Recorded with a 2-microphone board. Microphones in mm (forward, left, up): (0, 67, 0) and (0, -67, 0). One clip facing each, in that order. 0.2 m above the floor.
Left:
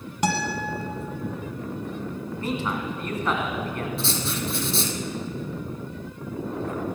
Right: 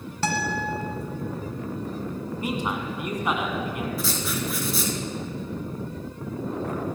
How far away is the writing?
About 1.1 m.